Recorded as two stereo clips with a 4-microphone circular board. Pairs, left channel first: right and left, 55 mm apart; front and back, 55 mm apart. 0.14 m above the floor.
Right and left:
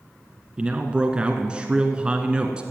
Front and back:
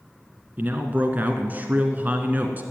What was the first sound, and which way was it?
A man speaking, 150° left.